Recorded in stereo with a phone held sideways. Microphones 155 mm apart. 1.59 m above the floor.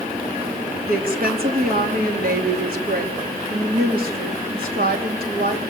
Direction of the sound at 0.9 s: 70° right (ahead or behind).